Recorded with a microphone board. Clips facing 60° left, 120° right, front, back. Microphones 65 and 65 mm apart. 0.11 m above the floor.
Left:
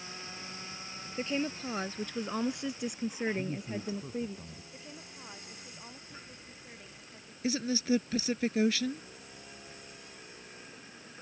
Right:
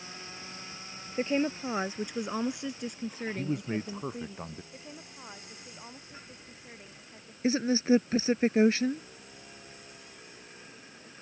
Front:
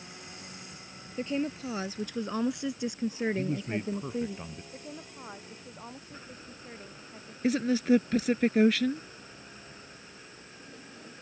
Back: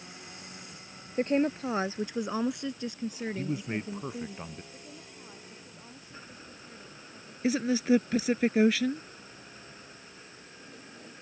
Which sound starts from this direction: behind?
A woman speaking, at 1.2 s.